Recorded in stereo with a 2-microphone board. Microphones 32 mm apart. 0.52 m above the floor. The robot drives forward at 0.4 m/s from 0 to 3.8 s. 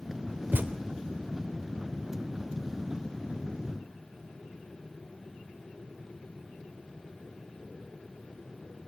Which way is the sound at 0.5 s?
70° right (ahead or behind).